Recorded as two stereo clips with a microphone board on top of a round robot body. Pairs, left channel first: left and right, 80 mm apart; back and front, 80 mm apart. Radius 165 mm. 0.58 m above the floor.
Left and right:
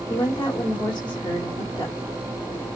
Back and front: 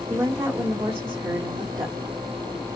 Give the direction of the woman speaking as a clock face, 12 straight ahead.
10 o'clock.